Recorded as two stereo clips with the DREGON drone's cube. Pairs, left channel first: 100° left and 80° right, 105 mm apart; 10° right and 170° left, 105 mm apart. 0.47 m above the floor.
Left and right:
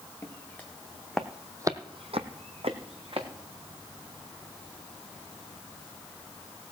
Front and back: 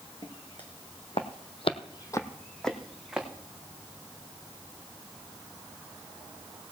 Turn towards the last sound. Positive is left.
turn(degrees=-110)